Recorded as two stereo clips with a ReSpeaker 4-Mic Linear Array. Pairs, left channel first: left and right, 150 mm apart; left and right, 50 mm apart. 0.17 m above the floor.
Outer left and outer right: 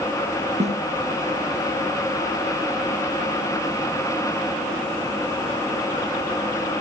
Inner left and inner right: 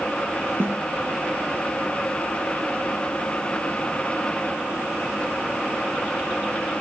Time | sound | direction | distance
0.6 | a snare drum | 50° right (ahead or behind) | 3.5 m